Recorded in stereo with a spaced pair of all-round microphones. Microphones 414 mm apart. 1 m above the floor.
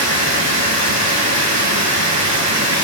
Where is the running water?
40° right (ahead or behind), 1.7 m.